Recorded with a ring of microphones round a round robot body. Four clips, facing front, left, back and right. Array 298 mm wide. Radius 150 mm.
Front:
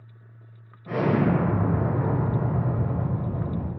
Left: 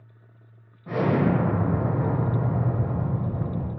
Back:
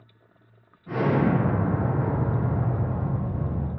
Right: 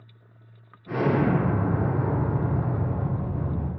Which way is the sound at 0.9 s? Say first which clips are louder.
Even, even; 35° left.